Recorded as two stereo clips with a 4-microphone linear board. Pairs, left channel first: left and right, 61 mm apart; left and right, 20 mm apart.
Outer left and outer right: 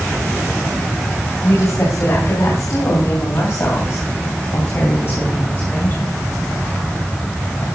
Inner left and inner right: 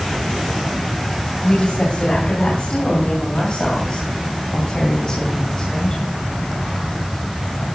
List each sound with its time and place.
1.4 s a woman speaking: 65° left (ahead or behind), 3.5 m; by 6.2 s 40° left (ahead or behind), 3.5 m